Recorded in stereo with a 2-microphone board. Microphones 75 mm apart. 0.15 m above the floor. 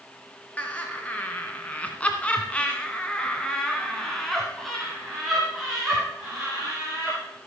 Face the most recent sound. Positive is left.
turn(degrees=-5)  # may be behind; listen again after turning